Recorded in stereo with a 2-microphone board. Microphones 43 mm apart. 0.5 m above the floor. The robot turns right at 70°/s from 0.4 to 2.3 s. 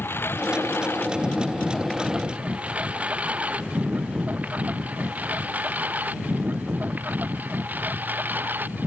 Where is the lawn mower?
70° left (ahead or behind); by 8.9 s 50° right (ahead or behind).